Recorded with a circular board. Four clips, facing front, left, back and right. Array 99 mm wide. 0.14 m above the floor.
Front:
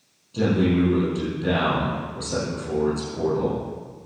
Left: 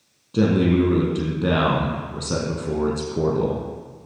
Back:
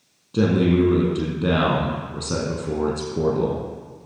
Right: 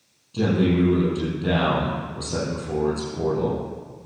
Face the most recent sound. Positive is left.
turn(degrees=125)